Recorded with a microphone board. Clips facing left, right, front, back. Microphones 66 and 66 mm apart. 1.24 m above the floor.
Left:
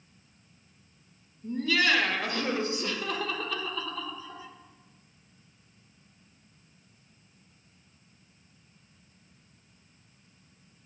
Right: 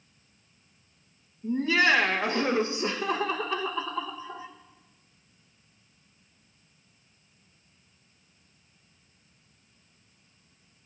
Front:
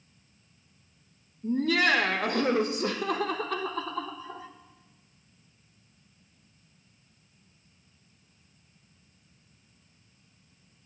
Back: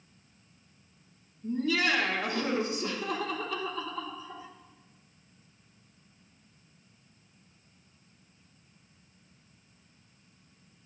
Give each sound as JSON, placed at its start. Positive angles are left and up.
{"t": 1.4, "sound": "laughter", "azimuth_deg": -30, "distance_m": 0.9}